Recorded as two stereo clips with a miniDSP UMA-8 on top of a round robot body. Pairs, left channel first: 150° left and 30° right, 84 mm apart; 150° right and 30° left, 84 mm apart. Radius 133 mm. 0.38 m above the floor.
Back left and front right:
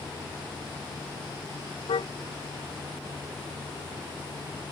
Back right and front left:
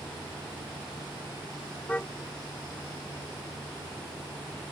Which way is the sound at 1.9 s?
135° left.